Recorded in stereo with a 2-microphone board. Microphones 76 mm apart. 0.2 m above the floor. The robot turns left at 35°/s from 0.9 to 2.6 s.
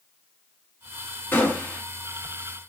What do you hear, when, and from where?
1.3 s a gunshot: 25° left (ahead or behind), 1.6 m; by 1.8 s 15° left (ahead or behind), 1.6 m